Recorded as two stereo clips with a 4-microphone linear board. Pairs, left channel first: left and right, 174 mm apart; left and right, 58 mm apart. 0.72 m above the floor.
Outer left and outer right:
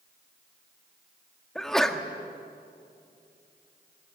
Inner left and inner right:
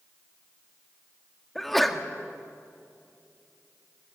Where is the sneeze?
5° left (ahead or behind), 1.6 m.